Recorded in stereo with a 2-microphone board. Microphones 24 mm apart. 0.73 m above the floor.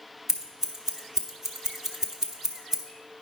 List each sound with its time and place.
0.3 s scissors: 15° right (ahead or behind), 1.1 m